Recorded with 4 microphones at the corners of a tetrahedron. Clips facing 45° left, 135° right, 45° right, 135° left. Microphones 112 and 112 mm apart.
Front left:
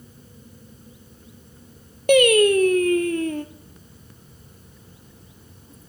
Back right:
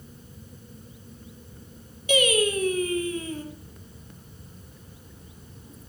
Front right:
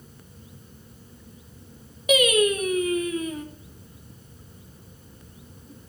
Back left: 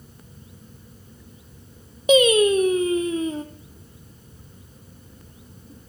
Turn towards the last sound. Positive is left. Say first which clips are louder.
# front left 8 dB, back left 5 dB
turn(degrees=75)